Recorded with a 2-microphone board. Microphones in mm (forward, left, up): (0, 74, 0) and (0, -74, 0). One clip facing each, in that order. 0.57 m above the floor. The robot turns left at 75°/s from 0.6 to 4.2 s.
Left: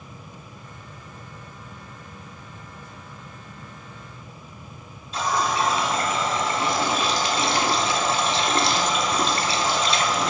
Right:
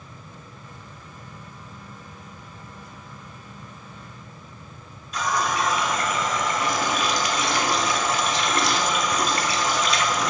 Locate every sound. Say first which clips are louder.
5.1 s a running tap: left 1 dB; 30° left (ahead or behind), 0.7 m